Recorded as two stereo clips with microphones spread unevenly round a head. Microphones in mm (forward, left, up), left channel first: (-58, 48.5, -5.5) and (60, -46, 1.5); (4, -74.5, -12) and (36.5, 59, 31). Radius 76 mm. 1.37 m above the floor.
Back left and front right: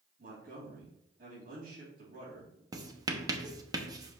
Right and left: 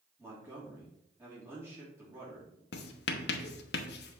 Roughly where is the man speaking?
Ahead.